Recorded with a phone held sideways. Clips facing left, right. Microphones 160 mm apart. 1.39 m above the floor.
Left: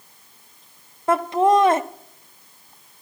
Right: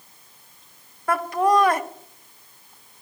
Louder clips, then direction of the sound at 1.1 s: Left 3 dB; 25° left (ahead or behind).